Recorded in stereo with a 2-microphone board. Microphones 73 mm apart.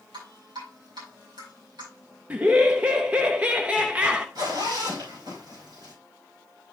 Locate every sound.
0.1 s dripping: 85° right, 6.5 m
2.3 s laughter: 20° right (ahead or behind), 0.7 m
4.3 s a zipper: 70° right (ahead or behind), 5.5 m